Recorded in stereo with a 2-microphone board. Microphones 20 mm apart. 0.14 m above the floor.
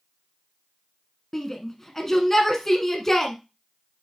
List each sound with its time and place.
1.3 s a shout: 20° left (ahead or behind), 1.1 m